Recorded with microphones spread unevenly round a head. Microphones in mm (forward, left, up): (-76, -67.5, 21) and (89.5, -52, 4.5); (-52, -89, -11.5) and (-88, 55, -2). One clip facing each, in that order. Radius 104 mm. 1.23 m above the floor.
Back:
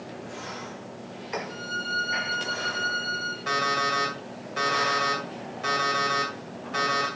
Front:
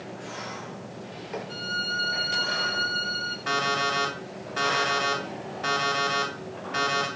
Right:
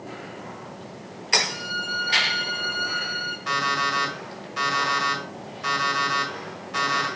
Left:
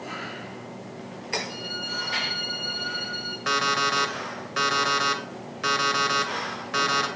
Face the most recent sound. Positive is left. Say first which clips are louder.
# front 1 dB, left 1 dB
turn(degrees=105)